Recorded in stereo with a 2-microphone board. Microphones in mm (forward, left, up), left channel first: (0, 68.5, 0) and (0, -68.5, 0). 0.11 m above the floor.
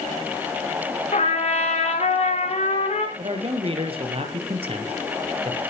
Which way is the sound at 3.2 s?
45° right (ahead or behind).